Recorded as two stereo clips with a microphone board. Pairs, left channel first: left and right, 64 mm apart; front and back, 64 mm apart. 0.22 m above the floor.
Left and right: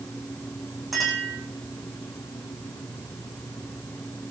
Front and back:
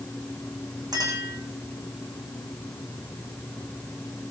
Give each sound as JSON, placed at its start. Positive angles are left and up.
{"t": 0.9, "sound": "a clink", "azimuth_deg": 180, "distance_m": 9.0}